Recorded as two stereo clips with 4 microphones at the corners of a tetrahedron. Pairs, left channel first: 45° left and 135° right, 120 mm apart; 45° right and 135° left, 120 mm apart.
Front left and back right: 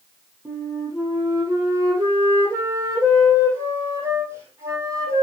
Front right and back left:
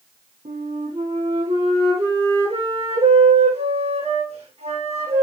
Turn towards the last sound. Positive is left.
turn(degrees=160)